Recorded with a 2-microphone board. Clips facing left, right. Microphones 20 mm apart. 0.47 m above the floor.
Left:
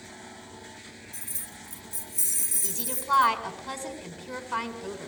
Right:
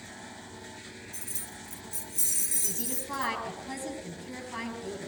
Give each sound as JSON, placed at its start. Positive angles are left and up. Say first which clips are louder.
{"t": 1.1, "sound": "keys jangling", "louder": "left 1 dB", "side_deg": -15, "distance_m": 4.0}
{"t": 2.6, "sound": "a woman speaking", "louder": "left 4 dB", "side_deg": 70, "distance_m": 4.0}